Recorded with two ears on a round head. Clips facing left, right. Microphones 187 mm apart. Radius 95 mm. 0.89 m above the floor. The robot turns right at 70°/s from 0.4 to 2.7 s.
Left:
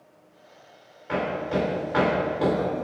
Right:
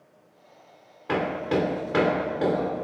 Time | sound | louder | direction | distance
1.1 | hammering | right 1 dB | 80° right | 2.5 m